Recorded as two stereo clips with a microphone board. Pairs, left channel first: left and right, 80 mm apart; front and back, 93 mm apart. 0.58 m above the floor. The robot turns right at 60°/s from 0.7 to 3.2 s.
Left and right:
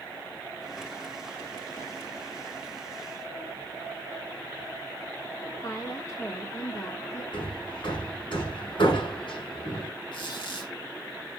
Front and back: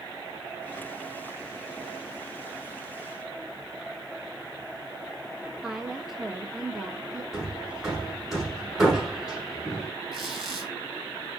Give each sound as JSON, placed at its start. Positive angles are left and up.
{"t": 5.6, "sound": "a woman speaking", "azimuth_deg": 95, "distance_m": 1.5}
{"t": 7.3, "sound": "hammering", "azimuth_deg": 95, "distance_m": 5.5}
{"t": 10.1, "sound": "a squeak", "azimuth_deg": 90, "distance_m": 5.0}